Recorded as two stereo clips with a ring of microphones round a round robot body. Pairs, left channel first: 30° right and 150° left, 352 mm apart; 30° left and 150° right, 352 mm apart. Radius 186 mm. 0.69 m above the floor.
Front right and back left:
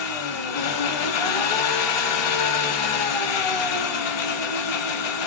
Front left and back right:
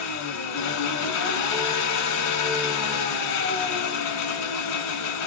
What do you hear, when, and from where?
0.0 s an engine running: 15° right, 1.5 m